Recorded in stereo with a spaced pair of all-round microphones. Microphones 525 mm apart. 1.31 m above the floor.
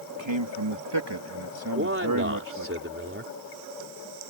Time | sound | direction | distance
0.2 | a man speaking | 60° right (ahead or behind) | ?
1.8 | a man speaking | 25° right (ahead or behind) | ?